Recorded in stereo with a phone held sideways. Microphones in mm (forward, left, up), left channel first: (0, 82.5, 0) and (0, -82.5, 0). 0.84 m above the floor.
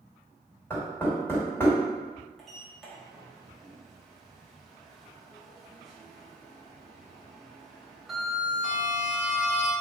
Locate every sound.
0.7 s knocking: 15° left (ahead or behind), 1.9 m
2.4 s a sliding door: centre (ahead or behind), 0.8 m